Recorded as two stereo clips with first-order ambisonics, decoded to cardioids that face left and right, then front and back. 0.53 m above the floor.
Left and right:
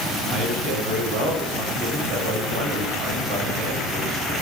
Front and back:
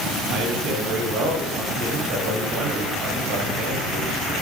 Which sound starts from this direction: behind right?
A man speaking, at 0.3 s.